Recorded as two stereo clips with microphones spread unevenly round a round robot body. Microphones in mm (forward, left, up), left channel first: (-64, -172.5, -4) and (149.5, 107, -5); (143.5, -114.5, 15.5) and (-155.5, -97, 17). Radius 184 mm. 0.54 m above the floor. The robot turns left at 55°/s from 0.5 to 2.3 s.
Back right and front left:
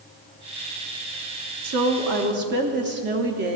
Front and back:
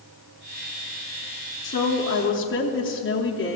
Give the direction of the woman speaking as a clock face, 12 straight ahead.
10 o'clock.